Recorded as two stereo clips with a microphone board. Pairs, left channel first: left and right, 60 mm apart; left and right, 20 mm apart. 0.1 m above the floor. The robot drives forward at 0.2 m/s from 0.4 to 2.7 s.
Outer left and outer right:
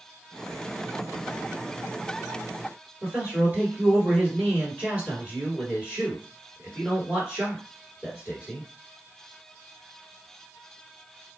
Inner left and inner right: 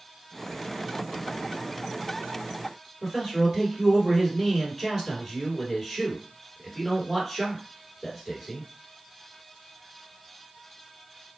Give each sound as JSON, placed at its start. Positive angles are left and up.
{"t": 3.0, "sound": "a man speaking", "side_deg": -25, "distance_m": 1.8}